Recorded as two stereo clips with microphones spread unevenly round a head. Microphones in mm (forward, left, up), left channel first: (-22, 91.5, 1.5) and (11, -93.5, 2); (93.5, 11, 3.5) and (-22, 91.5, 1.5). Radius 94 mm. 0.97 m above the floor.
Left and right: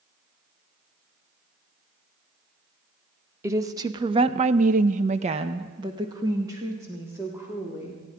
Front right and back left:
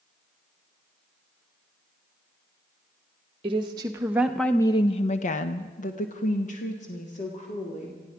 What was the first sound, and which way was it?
A woman speaking, 155° right.